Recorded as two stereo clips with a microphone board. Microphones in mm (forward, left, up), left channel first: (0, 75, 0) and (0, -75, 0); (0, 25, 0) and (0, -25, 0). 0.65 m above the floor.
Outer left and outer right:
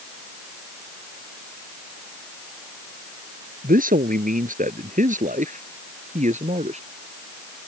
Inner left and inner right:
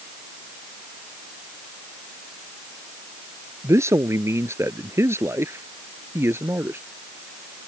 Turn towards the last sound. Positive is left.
turn(degrees=-50)  # may be behind; listen again after turning